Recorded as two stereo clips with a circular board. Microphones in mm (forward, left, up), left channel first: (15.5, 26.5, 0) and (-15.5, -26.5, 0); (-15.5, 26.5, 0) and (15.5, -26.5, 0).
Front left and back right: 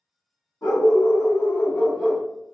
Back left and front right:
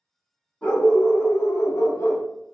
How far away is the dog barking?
About 1.1 m.